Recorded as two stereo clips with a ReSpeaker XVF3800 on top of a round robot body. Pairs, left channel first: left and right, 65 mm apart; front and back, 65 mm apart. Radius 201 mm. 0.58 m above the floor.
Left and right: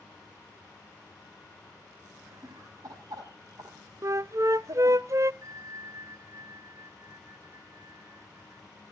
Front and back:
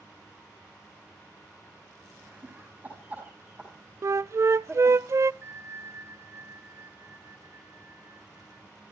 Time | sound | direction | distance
2.2 | laughter | 120° right | 7.5 m
4.0 | a flute | 135° right | 0.5 m
5.4 | a bell | 130° right | 4.5 m